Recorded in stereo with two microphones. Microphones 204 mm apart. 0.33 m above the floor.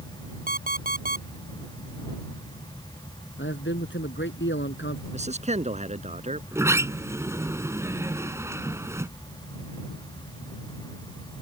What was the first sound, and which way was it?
An alarm clock, 45° right (ahead or behind).